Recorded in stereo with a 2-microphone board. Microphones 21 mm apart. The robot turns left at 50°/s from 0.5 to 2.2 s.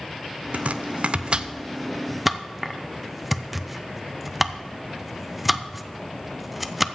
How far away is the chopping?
About 0.5 m.